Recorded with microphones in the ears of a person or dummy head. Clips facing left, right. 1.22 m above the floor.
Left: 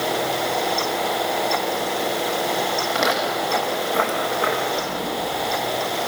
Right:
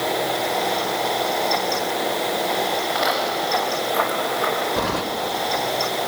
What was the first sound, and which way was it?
Footsteps, 40° left (ahead or behind).